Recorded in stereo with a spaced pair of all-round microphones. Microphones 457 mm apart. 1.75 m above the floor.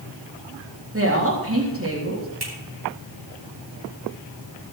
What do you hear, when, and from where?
0.9 s a woman speaking: 30° right (ahead or behind), 3.5 m
2.4 s a finger snap: 55° right (ahead or behind), 4.5 m